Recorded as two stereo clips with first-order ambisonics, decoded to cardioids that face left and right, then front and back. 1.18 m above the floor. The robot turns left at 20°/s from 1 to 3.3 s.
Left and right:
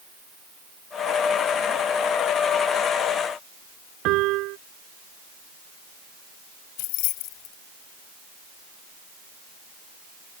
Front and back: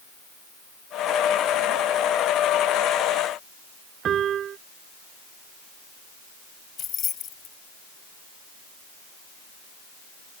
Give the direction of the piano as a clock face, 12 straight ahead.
4 o'clock.